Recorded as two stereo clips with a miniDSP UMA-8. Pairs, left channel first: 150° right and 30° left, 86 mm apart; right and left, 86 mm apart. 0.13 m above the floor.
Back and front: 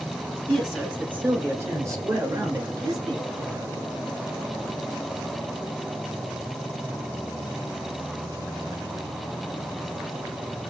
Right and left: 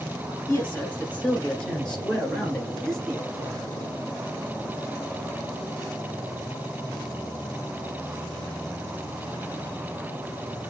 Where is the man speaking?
60° right, 1.3 m; by 3.7 s straight ahead, 2.5 m.